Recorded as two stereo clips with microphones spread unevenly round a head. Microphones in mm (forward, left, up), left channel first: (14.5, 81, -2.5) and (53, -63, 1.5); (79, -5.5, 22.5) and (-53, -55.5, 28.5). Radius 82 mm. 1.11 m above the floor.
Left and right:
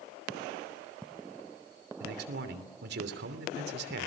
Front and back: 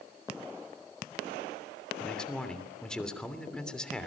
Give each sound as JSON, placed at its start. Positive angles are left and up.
{"t": 2.0, "sound": "a man speaking", "azimuth_deg": -65, "distance_m": 3.0}